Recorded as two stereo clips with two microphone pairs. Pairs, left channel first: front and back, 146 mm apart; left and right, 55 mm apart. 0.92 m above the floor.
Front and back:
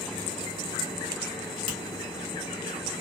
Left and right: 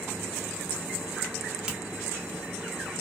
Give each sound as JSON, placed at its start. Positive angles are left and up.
{"t": 1.7, "sound": "a finger snap", "azimuth_deg": -20, "distance_m": 1.4}